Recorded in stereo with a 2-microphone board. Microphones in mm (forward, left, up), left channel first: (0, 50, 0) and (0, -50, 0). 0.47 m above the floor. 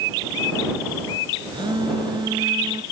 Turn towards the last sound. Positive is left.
turn(degrees=-50)  # may be behind; listen again after turning